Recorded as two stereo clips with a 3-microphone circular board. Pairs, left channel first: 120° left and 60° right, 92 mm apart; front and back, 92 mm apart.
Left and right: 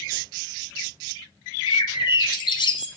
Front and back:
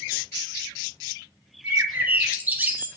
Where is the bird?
110° left, 0.7 m.